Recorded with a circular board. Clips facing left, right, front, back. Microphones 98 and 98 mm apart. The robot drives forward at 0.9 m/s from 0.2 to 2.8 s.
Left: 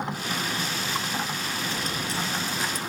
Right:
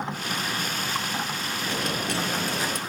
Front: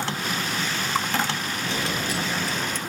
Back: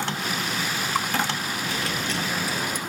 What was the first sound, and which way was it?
A dropped coin, 65° right.